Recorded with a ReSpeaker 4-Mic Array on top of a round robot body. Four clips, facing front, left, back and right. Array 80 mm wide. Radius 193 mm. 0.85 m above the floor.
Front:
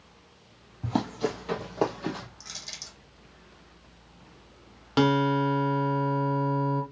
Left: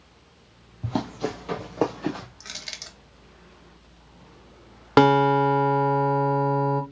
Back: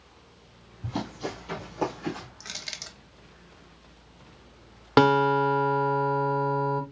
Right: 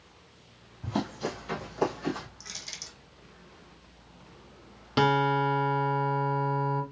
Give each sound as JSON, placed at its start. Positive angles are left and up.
{"t": 0.8, "sound": "running footsteps", "azimuth_deg": 40, "distance_m": 1.3}
{"t": 2.4, "sound": "crushing", "azimuth_deg": 140, "distance_m": 1.9}
{"t": 5.0, "sound": "a guitar", "azimuth_deg": 125, "distance_m": 1.2}